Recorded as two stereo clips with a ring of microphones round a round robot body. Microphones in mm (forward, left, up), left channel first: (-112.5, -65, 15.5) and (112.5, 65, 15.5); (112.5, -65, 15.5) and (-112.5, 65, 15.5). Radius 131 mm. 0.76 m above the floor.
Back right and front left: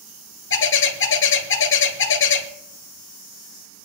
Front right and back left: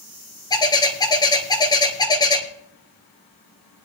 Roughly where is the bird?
Right.